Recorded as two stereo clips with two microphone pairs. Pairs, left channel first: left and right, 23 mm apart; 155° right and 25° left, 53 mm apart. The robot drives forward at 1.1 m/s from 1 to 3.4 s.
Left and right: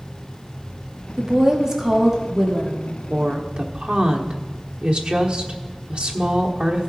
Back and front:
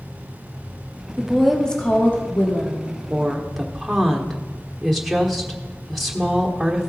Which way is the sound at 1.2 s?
40° right.